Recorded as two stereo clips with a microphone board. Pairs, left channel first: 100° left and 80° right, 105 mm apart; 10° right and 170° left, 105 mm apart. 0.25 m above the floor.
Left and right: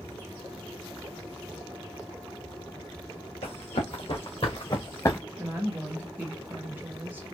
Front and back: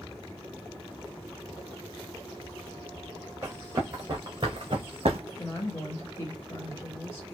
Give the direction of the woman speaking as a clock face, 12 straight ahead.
1 o'clock.